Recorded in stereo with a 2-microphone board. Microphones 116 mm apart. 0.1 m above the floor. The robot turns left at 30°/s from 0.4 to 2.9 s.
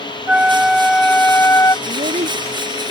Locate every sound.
0.3 s a flute: 170° right; by 1.8 s 150° left
1.9 s a child speaking: 75° right (ahead or behind)